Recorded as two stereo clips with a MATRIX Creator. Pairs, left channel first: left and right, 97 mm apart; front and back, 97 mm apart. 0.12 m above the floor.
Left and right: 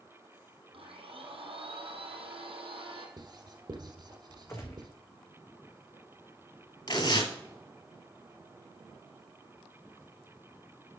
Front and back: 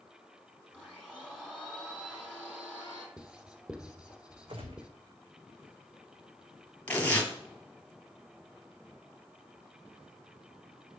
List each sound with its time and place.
0.7 s a blender: 100° right, 3 m
3.2 s writing: 105° right, 1.3 m
4.5 s a gunshot: 150° left, 1.5 m
6.9 s tearing paper: 70° left, 2.5 m